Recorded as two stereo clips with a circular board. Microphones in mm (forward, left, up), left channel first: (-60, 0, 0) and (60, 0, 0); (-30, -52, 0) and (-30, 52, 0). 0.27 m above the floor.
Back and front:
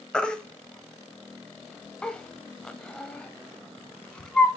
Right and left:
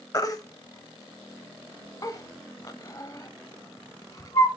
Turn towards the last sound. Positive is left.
turn(degrees=-100)